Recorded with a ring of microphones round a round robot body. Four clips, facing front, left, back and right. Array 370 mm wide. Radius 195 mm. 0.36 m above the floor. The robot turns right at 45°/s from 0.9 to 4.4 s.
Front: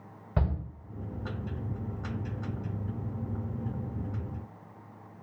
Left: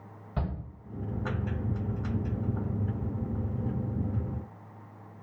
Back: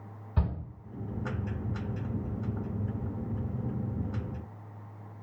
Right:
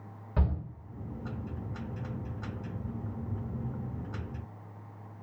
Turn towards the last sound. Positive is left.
turn(degrees=140)